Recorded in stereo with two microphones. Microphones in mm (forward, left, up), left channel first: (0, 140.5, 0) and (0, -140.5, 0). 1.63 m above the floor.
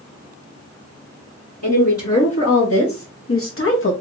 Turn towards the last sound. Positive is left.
turn(degrees=45)  # may be behind; listen again after turning